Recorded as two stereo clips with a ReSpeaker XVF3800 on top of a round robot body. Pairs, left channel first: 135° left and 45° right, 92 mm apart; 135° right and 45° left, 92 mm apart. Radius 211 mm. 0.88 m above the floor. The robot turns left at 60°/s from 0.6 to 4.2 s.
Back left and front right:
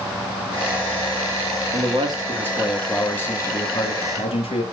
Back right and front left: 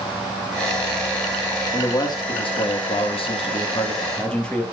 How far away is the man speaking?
About 2 m.